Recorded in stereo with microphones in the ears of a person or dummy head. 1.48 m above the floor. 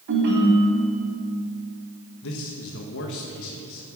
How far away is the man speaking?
About 1.4 m.